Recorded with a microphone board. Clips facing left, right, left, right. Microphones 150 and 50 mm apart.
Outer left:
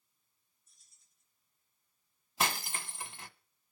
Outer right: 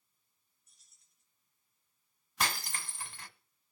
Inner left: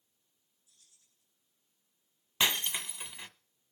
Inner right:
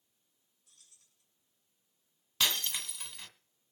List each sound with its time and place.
0.7 s keys jangling: 65° right (ahead or behind), 6.5 m
2.4 s breaking glass: 20° left (ahead or behind), 1.3 m